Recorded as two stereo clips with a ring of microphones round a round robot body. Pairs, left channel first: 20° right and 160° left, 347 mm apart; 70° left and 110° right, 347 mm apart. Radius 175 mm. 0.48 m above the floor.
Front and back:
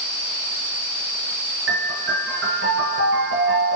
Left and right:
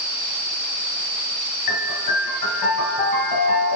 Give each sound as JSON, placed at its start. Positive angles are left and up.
{"t": 1.7, "sound": "a piano", "azimuth_deg": 100, "distance_m": 3.5}